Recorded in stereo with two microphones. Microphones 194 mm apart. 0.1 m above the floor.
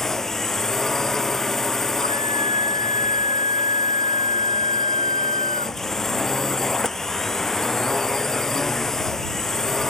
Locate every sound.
0.0 s a drone: centre (ahead or behind)
2.0 s a scream: 40° left (ahead or behind)